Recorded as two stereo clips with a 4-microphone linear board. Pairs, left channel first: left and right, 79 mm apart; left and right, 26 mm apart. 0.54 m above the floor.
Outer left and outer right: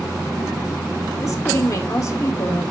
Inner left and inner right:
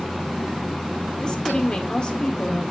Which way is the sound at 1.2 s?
45° left (ahead or behind).